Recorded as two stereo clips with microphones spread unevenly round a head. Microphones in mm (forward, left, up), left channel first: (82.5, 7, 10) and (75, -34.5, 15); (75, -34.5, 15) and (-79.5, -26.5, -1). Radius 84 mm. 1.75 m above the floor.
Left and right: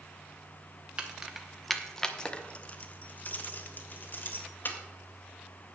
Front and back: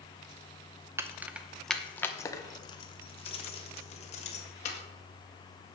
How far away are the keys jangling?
About 0.9 m.